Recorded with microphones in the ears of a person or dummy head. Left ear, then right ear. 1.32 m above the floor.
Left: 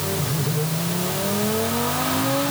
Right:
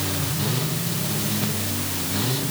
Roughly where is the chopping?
No chopping in this recording.